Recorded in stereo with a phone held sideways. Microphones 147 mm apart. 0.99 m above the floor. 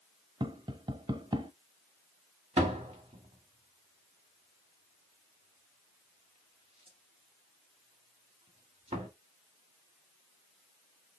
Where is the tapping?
30° right (ahead or behind), 0.8 m.